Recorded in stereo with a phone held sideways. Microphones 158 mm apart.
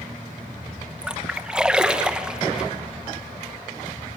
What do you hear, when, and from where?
1.0 s a splash: 5° right (ahead or behind), 0.9 m